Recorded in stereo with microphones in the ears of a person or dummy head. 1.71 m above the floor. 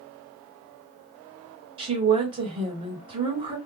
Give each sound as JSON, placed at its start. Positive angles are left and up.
{"t": 1.8, "sound": "a woman speaking", "side_deg": -30, "distance_m": 1.8}